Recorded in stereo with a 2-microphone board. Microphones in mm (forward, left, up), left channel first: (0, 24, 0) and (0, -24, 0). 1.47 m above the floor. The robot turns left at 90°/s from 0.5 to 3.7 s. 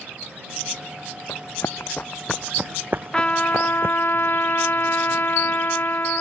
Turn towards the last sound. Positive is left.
turn(degrees=105)